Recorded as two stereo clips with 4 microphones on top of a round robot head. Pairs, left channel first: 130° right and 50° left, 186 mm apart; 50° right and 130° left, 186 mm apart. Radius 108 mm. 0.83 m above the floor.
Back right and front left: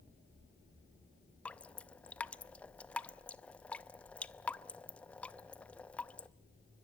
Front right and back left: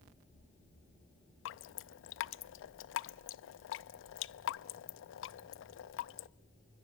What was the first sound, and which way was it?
Dripping, 45° right.